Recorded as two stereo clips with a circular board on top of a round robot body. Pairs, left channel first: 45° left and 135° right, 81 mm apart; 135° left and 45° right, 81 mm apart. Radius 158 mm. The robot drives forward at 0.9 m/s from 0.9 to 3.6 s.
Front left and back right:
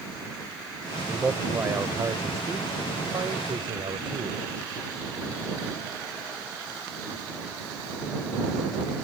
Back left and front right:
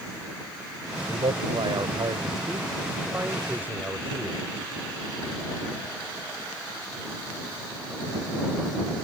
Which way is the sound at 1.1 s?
60° right.